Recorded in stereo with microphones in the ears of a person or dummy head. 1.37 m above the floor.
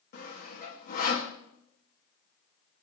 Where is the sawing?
45° left (ahead or behind), 1.8 m.